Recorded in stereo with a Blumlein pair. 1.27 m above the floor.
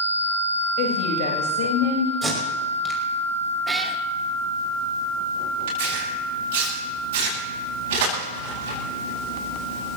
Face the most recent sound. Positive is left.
turn(degrees=-55)